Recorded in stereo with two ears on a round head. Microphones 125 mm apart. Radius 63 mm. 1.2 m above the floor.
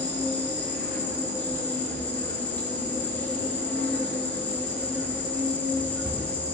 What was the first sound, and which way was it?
An insect, 15° left (ahead or behind).